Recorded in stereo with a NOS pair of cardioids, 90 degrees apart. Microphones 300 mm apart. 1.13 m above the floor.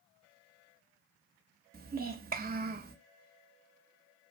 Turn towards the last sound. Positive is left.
turn(degrees=-30)